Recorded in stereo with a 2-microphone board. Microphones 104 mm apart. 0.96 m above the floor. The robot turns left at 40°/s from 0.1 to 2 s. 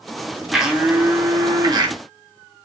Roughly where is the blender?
Ahead.